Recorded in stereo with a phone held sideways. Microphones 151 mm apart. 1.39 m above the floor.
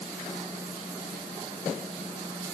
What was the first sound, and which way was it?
Only background noise.